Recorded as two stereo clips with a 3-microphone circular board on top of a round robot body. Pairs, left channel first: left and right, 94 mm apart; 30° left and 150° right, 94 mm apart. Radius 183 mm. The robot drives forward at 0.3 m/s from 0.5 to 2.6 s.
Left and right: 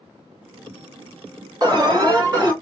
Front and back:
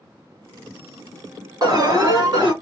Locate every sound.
1.6 s an alarm: 120° right, 2.5 m; by 2.5 s 130° right, 2.5 m